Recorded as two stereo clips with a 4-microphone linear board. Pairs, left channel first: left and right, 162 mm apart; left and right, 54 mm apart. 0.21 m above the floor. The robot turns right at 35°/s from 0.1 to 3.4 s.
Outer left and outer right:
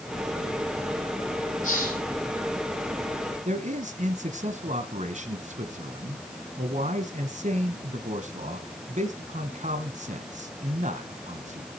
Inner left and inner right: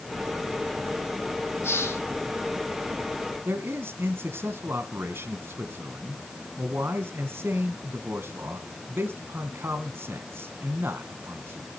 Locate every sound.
1.6 s a hiss: 55° left (ahead or behind), 10 m; by 2.0 s 65° left (ahead or behind), 10 m
3.5 s a man speaking: 50° right (ahead or behind), 1.8 m